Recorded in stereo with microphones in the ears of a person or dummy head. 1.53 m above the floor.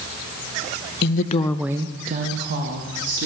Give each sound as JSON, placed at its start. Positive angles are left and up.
{"t": 1.0, "sound": "a woman speaking", "side_deg": 60, "distance_m": 0.9}